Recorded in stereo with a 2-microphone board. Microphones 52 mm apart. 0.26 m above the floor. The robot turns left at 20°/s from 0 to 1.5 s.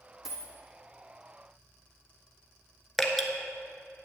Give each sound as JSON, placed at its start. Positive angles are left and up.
{"t": 0.2, "sound": "a dropped coin", "side_deg": -5, "distance_m": 1.4}
{"t": 3.0, "sound": "dripping", "side_deg": 5, "distance_m": 1.0}